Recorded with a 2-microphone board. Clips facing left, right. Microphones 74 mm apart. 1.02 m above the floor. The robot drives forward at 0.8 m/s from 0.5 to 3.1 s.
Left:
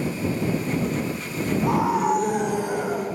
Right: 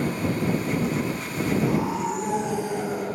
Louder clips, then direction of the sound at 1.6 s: Left 4 dB; 60° left (ahead or behind).